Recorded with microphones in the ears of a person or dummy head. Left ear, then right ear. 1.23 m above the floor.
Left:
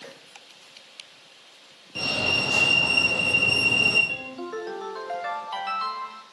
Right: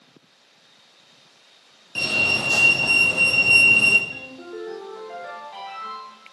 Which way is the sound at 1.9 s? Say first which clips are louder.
Right 3 dB; 20° right (ahead or behind).